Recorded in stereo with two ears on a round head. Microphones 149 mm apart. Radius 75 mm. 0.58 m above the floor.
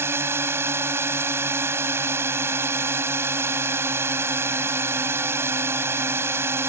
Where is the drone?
15° right (ahead or behind).